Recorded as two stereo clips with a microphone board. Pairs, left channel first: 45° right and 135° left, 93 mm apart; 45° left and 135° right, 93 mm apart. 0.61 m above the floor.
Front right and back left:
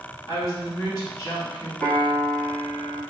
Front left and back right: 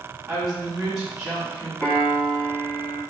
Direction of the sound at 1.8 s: 5° right.